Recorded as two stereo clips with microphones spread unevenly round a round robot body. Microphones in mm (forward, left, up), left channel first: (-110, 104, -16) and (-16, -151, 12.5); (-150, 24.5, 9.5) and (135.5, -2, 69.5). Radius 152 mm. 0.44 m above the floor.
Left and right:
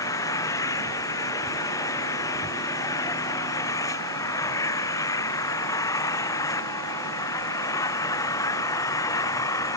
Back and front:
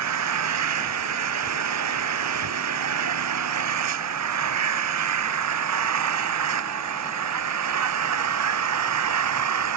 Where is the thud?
No thud in this recording.